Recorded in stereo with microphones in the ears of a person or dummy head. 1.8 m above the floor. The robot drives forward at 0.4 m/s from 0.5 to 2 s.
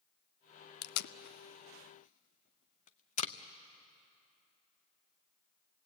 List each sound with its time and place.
0.8 s tape being pulled: 65° left (ahead or behind), 0.5 m; by 3.3 s 35° left (ahead or behind), 0.8 m